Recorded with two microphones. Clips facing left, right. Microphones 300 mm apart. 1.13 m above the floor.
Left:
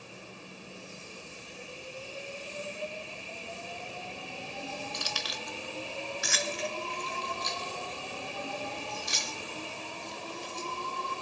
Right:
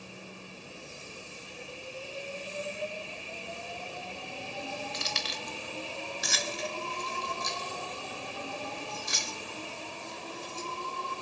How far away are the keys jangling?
About 1.4 m.